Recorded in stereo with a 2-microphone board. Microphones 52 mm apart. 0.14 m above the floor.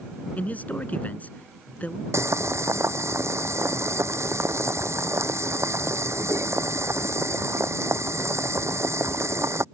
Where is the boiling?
65° right (ahead or behind).